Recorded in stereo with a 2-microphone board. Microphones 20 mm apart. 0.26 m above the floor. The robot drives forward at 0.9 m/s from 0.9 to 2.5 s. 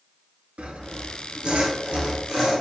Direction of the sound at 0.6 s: 90° right.